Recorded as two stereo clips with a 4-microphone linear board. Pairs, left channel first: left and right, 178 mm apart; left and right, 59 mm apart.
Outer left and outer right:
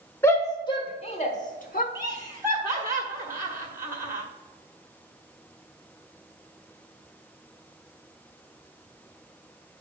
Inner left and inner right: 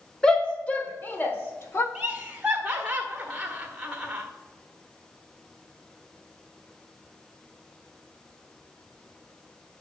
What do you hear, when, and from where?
0.2 s a shout: 15° left (ahead or behind), 1.2 m; by 1.9 s 50° left (ahead or behind), 1.2 m
1.9 s laughter: 20° right (ahead or behind), 1.1 m